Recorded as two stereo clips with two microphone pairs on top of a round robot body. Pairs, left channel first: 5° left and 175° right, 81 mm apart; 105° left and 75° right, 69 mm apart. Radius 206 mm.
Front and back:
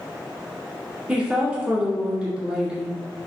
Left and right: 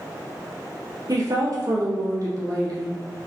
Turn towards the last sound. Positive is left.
turn(degrees=-90)